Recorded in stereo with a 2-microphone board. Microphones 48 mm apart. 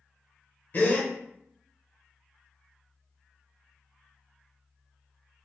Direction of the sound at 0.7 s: 45° left (ahead or behind).